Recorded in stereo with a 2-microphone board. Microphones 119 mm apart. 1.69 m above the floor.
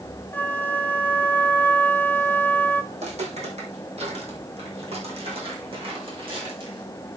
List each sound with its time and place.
0.3 s a flute: 15° left (ahead or behind), 0.5 m
2.9 s footsteps: 65° right (ahead or behind), 4 m; by 6.9 s 45° right (ahead or behind), 5 m